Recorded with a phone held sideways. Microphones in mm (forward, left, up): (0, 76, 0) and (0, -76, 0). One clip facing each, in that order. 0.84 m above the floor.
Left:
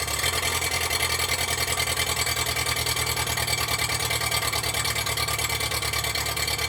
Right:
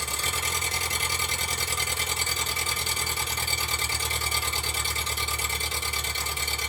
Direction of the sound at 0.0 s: 70° left (ahead or behind).